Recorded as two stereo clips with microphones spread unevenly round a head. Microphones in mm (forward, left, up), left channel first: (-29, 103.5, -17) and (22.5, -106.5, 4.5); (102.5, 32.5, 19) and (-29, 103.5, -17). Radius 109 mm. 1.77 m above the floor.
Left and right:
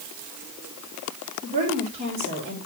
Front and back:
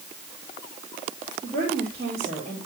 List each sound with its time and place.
1.4 s a woman speaking: 135° right, 5 m